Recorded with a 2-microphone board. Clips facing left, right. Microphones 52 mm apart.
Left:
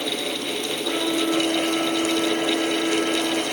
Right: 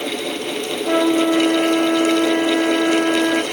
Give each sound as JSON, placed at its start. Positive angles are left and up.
{"t": 0.8, "sound": "a flute", "side_deg": -65, "distance_m": 1.3}